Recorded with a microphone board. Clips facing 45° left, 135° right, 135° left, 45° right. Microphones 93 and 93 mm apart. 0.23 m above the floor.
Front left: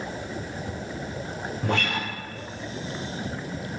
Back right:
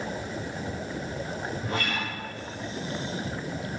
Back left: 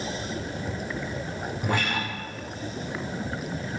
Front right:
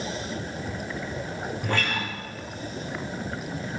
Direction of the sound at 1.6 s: 60° left.